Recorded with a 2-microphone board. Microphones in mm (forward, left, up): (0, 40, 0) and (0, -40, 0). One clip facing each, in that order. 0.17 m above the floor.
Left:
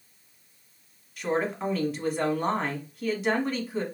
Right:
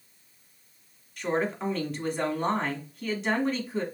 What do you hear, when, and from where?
1.2 s a woman speaking: 5° left (ahead or behind), 1.1 m